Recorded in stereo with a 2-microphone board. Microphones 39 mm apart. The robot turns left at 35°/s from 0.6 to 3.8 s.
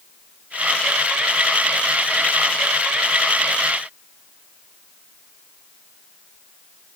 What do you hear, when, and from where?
Only background noise.